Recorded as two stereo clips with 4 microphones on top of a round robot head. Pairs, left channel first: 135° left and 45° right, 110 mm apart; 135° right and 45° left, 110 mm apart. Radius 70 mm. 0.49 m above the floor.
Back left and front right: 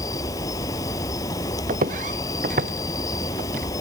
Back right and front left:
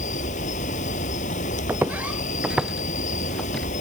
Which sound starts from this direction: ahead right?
Footsteps, at 1.7 s.